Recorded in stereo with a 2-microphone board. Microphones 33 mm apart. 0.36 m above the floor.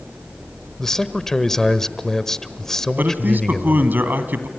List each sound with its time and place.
0.8 s a man speaking: 15° left (ahead or behind), 1.1 m
3.0 s a man speaking: 65° right (ahead or behind), 2.5 m